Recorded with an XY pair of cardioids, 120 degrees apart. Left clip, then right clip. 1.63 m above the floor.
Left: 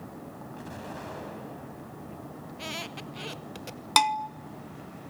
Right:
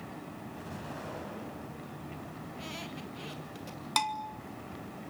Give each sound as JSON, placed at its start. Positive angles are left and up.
{"t": 0.6, "sound": "an explosion", "azimuth_deg": 25, "distance_m": 7.5}
{"t": 2.5, "sound": "a squeak", "azimuth_deg": 45, "distance_m": 1.6}
{"t": 4.0, "sound": "a bell", "azimuth_deg": 45, "distance_m": 0.9}